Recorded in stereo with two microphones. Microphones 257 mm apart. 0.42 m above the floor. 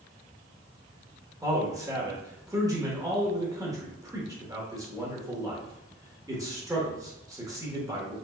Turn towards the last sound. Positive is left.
turn(degrees=-15)  # may be behind; listen again after turning